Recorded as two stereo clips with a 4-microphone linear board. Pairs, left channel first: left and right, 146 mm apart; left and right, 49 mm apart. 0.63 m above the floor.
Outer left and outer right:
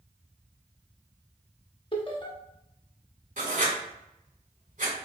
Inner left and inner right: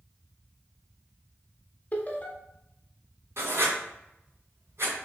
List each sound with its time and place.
1.9 s laughter: 35° left (ahead or behind), 0.8 m
3.4 s writing: 65° right (ahead or behind), 2.0 m